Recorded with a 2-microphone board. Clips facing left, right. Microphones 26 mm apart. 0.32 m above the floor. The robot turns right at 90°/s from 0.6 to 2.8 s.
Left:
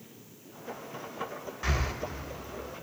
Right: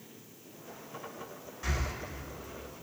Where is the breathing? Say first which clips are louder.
Left 4 dB; 25° left (ahead or behind), 0.5 m; by 1.9 s 35° left (ahead or behind), 0.5 m.